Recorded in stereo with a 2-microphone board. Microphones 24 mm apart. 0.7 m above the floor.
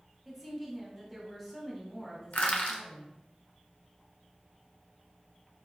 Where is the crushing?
70° left (ahead or behind), 0.6 m.